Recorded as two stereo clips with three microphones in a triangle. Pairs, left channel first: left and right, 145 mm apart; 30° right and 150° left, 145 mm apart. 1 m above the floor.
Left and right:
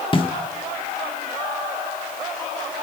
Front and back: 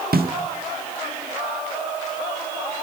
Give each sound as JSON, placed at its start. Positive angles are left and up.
{"t": 0.1, "sound": "a snare drum", "azimuth_deg": 145, "distance_m": 1.4}